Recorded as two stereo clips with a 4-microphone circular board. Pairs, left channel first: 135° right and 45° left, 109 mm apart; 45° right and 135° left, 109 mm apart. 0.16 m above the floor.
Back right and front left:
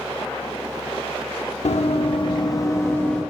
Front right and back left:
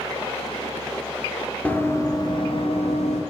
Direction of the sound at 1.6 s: 120° right.